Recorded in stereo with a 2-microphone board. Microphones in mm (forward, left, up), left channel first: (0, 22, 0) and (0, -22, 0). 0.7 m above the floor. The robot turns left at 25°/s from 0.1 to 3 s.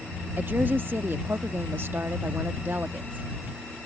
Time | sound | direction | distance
0.4 | a woman speaking | 55° right | ?